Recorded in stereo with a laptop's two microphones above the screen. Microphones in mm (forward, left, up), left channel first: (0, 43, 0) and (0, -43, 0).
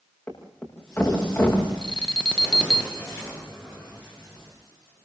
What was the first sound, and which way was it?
A thud, 25° left (ahead or behind).